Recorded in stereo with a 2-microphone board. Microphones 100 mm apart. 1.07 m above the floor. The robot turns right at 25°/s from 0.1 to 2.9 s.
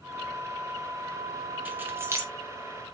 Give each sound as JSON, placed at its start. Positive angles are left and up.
{"t": 1.6, "sound": "keys jangling", "side_deg": -15, "distance_m": 0.6}